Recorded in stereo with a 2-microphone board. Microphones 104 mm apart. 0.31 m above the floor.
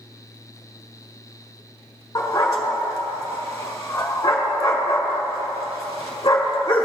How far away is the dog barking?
About 1.3 m.